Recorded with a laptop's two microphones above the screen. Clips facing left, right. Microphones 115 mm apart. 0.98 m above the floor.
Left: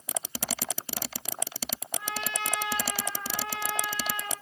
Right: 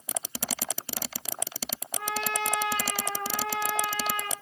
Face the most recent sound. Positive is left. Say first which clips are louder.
# right 5 dB
turn(degrees=-70)  # may be behind; listen again after turning